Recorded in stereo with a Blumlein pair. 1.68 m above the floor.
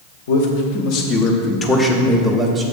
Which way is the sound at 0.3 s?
55° left.